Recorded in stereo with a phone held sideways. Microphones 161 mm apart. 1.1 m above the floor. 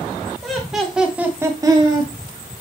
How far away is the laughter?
About 1.8 m.